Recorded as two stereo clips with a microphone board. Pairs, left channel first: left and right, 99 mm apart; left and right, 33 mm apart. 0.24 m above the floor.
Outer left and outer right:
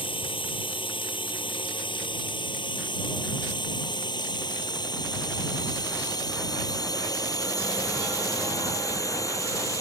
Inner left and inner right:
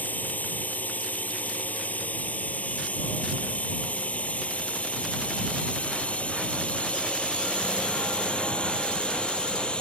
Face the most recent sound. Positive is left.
turn(degrees=30)  # may be behind; listen again after turning